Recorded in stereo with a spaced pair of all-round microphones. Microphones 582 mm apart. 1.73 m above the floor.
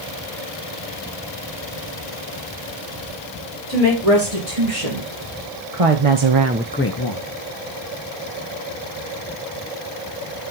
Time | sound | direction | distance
3.7 | a woman speaking | 60° right (ahead or behind) | 4.5 m